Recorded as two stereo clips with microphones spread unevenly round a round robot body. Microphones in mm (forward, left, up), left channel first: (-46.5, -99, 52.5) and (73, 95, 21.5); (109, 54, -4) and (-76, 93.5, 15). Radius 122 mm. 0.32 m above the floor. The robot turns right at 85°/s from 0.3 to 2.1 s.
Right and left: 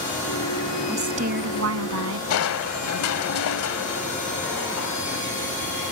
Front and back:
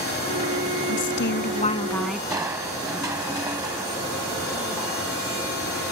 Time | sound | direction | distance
0.9 | a woman speaking | 25° right | ?
2.3 | crushing | 115° right | ?